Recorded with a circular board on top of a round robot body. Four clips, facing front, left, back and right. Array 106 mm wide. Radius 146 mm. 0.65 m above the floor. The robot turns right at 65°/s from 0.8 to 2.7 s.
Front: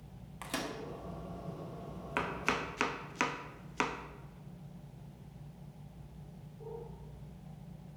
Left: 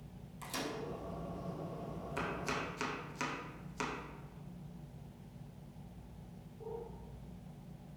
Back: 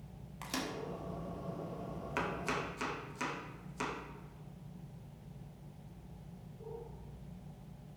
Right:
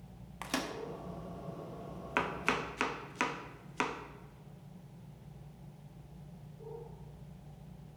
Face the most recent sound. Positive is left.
turn(degrees=-35)